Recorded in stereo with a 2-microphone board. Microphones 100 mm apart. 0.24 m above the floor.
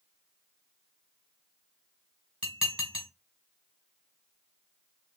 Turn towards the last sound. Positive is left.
turn(degrees=-10)  # may be behind; listen again after turning